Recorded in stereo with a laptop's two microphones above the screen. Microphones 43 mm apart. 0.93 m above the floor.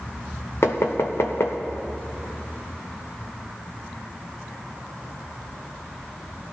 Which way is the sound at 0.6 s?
70° left (ahead or behind).